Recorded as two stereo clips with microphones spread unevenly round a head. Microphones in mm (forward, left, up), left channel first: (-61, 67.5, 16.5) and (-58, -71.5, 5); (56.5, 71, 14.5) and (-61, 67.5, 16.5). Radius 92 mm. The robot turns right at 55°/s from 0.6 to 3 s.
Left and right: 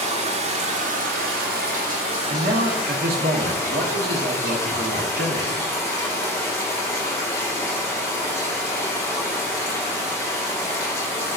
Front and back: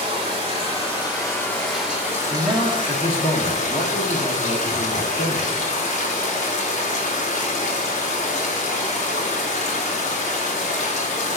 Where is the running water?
120° right, 1.7 m; by 11.4 s 10° left, 1.7 m.